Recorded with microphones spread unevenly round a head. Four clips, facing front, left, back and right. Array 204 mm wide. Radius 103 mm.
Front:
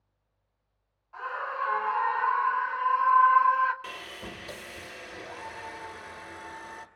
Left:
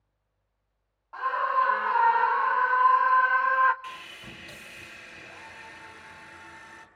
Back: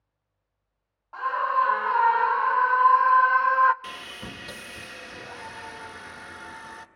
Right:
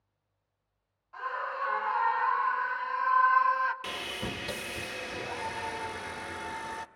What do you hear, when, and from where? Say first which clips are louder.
1.1 s a scream: left 9 dB, back 9 dB; 145° left, 2.5 m; by 3.7 s 160° left, 1.0 m
3.8 s sawing: right 5 dB, back 1 dB; 100° right, 1.1 m